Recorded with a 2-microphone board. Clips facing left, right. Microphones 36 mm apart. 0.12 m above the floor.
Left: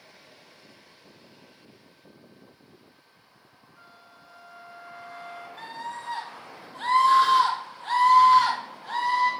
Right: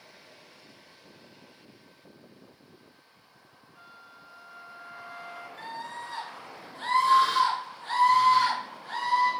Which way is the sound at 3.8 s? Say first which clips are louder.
Right 2 dB; 15° right (ahead or behind).